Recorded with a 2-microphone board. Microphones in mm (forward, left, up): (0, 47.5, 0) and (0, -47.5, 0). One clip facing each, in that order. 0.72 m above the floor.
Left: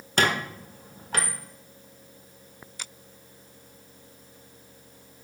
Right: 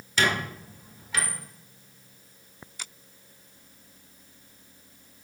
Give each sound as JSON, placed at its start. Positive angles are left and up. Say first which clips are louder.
{"t": 0.2, "sound": "a squeak", "louder": "left 1 dB", "side_deg": 50, "distance_m": 1.0}